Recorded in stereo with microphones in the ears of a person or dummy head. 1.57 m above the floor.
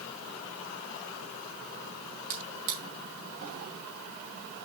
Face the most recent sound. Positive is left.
turn(degrees=-55)  # may be behind; listen again after turning